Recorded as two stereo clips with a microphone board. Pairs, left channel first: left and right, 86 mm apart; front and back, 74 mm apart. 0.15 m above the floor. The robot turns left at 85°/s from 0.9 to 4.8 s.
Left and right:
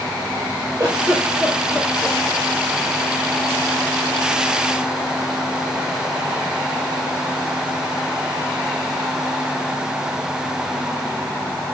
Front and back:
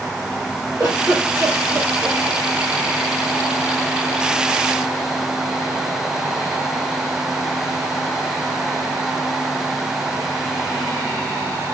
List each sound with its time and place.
0.8 s a giggle: 135° right, 3 m; by 2.2 s 115° left, 3 m